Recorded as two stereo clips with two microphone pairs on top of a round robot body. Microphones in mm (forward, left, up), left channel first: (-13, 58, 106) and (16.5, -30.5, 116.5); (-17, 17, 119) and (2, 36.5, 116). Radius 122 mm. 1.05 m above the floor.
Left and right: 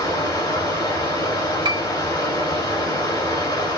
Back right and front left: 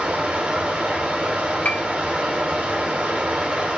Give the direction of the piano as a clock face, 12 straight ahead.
4 o'clock.